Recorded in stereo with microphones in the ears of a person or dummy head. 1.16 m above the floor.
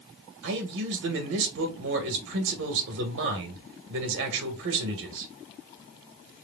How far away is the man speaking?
About 1.5 m.